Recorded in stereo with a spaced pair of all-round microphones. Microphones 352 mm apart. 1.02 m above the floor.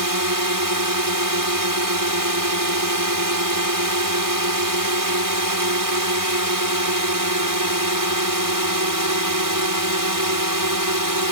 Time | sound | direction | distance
0.0 | a drone | 65° right (ahead or behind) | ?